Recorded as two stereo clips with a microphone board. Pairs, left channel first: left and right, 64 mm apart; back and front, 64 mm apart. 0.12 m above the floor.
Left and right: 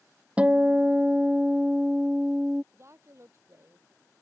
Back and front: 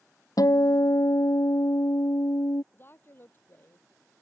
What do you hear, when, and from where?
0.4 s a guitar: 160° right
2.7 s a woman speaking: 130° right